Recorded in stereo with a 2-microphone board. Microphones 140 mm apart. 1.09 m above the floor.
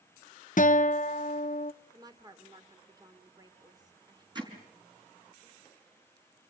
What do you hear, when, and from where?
0.6 s a guitar: 60° left (ahead or behind), 0.6 m
1.9 s a woman speaking: 30° right (ahead or behind), 3 m
4.3 s hammering: 30° right (ahead or behind), 4.5 m